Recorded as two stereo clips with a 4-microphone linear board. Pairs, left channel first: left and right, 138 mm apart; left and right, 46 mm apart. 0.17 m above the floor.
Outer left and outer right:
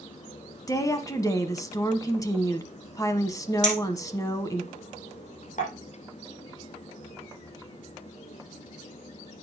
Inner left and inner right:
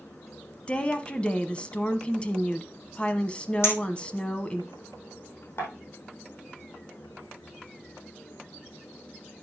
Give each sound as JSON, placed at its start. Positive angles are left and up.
{"t": 0.7, "sound": "a woman speaking", "side_deg": 25, "distance_m": 1.0}
{"t": 3.6, "sound": "a clink", "side_deg": 60, "distance_m": 4.0}